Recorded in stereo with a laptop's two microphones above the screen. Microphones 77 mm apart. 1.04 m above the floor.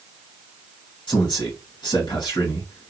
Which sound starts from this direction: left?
A man speaking, at 1.1 s.